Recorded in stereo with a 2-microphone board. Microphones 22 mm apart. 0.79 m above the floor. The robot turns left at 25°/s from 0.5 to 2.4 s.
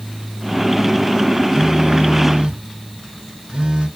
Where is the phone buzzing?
35° right (ahead or behind), 1.9 m; by 3.9 s 55° right (ahead or behind), 1.9 m.